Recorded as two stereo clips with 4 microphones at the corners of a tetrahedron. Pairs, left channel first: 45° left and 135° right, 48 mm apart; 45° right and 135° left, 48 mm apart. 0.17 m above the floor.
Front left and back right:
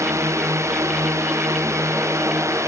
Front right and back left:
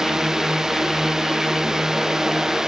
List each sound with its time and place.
0.0 s a drone: 145° right